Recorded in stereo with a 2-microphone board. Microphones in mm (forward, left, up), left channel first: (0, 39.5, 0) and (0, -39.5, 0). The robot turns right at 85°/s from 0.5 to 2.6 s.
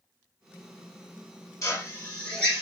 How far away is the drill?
About 1.9 m.